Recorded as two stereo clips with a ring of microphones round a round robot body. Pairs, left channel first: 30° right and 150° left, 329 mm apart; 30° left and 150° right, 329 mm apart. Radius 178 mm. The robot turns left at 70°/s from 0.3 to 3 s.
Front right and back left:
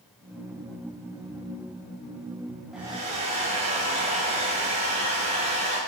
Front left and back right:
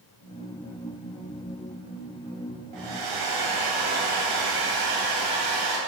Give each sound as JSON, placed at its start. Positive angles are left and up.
{"t": 2.7, "sound": "a hair dryer", "azimuth_deg": -120, "distance_m": 2.5}